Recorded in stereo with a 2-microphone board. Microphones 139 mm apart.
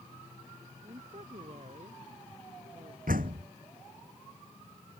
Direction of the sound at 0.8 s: 55° right (ahead or behind).